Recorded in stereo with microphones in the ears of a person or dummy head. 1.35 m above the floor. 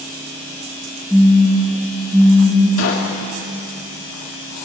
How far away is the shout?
I don't hear a shout.